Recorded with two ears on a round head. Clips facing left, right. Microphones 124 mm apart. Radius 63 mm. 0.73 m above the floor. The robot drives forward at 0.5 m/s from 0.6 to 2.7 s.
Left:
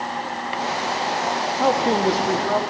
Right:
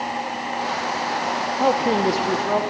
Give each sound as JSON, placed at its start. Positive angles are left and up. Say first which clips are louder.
{"t": 1.6, "sound": "a man speaking", "louder": "even", "side_deg": -5, "distance_m": 0.7}